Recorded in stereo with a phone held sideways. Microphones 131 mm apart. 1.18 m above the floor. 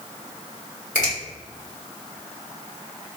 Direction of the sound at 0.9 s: 70° left (ahead or behind).